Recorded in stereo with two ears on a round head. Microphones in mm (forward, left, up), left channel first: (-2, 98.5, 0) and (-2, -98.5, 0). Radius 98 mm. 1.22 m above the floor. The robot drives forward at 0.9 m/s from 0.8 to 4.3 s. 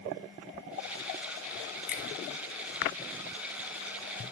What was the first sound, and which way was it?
A finger snap, 35° left (ahead or behind).